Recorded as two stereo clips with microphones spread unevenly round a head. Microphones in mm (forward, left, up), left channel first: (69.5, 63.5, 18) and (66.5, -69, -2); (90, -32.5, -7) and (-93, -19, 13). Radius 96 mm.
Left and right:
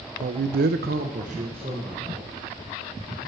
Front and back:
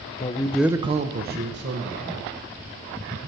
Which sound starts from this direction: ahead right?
A man speaking, at 0.2 s.